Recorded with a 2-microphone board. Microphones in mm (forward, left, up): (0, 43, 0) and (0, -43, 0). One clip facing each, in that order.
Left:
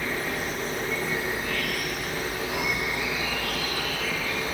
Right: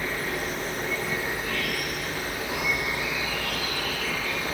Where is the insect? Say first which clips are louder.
Even; 75° left (ahead or behind), 1.7 m.